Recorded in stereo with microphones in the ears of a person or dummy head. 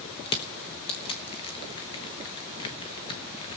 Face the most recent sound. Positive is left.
turn(degrees=30)  # may be behind; listen again after turning